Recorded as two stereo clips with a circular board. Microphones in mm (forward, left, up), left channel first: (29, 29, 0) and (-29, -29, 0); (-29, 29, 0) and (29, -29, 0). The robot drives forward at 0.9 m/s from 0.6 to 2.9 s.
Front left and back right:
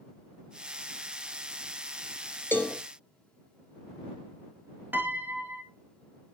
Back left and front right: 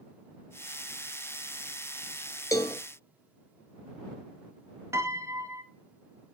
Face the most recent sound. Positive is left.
turn(degrees=-80)